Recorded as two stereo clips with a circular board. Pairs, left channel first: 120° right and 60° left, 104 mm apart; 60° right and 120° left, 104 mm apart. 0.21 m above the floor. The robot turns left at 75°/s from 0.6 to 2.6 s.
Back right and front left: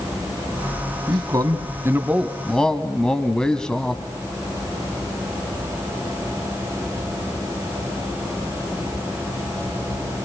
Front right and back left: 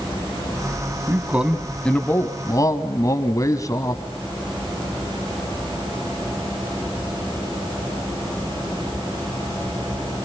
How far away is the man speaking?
About 2.0 m.